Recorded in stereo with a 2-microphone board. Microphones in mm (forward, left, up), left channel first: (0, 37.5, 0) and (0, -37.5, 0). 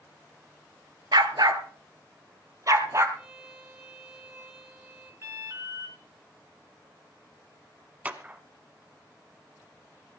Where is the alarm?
35° right (ahead or behind), 2.5 m.